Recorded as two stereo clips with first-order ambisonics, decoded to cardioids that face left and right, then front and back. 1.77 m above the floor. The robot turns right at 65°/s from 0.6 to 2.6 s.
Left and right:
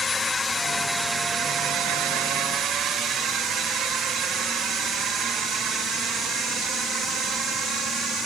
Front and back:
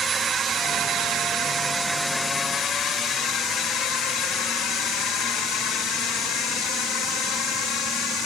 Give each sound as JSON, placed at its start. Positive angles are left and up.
{"t": 0.0, "sound": "a drone", "azimuth_deg": 135}